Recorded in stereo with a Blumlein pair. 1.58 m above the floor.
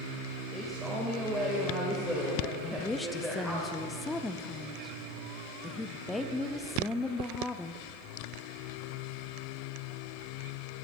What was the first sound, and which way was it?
A man speaking, 5° right.